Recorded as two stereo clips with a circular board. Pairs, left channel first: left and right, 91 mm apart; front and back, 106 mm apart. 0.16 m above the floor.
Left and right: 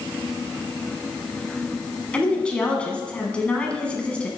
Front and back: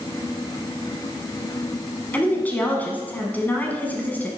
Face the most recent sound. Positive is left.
turn(degrees=40)